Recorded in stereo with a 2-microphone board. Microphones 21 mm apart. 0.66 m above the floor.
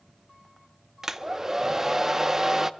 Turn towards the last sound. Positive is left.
turn(degrees=-20)  # may be behind; listen again after turning